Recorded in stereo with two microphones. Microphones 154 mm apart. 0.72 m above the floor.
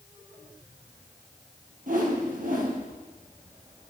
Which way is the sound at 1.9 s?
55° right (ahead or behind).